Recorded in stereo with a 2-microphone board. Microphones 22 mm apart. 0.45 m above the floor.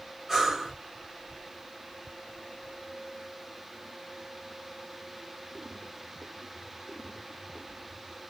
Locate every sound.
0.3 s breathing: 15° right (ahead or behind), 1.2 m